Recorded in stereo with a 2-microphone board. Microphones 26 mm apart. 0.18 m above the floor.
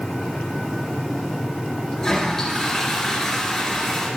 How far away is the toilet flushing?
About 3.5 m.